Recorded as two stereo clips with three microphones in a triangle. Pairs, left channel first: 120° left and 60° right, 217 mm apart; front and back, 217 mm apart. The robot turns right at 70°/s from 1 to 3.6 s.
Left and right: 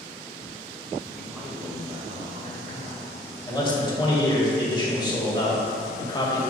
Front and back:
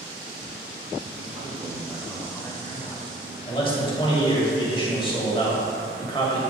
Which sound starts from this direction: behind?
A man speaking, at 1.2 s.